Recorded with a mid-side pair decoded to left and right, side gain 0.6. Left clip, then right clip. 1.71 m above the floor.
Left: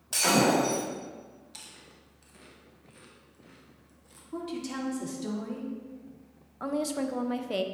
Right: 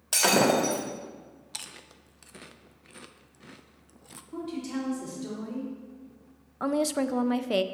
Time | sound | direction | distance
0.1 | breaking glass | 40° right | 2.5 m
1.5 | chewing | 50° right | 0.7 m
4.3 | a woman speaking | 20° left | 3.5 m
6.6 | a woman speaking | 30° right | 0.5 m